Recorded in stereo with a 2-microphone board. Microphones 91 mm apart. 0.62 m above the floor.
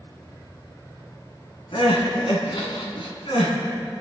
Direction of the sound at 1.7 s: 80° left.